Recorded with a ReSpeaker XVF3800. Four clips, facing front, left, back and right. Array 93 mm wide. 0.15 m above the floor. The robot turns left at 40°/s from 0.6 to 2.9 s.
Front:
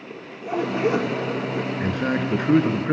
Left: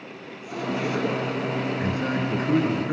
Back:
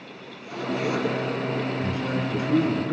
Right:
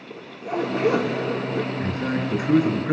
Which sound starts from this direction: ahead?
A man speaking, at 1.8 s.